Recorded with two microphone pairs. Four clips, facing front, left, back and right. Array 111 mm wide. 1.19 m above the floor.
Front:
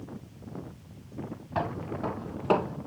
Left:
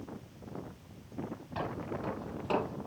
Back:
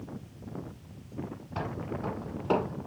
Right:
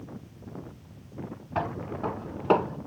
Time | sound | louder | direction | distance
1.6 | footsteps | right 6 dB, front 4 dB | 45° right | 2.5 m